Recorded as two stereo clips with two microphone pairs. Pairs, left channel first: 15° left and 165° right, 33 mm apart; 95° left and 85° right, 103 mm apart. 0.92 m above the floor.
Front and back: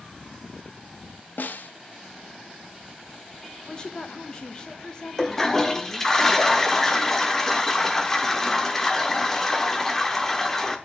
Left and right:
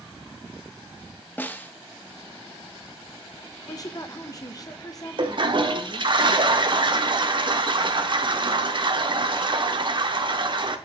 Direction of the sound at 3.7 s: 70° left.